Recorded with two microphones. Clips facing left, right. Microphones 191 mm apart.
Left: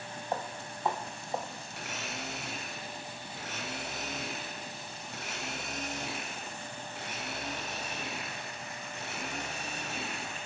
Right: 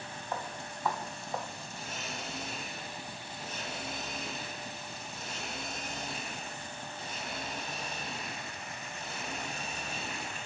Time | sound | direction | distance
0.3 | footsteps | 30° left (ahead or behind) | 2.5 m
1.7 | a blender | 85° left | 10 m